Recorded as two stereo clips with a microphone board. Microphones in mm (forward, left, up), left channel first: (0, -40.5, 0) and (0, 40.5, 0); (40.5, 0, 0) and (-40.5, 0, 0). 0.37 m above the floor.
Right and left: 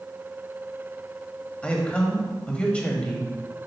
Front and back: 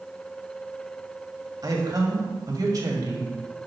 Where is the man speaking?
160° right, 1.5 m.